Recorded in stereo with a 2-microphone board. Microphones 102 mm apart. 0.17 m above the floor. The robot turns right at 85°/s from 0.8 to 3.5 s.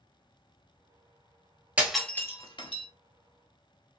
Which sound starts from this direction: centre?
Breaking glass, at 1.8 s.